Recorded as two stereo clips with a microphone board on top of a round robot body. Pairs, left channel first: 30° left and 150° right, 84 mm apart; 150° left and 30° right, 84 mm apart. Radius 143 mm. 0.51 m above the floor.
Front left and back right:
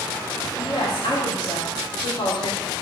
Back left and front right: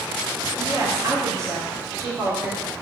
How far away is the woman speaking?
About 2.5 m.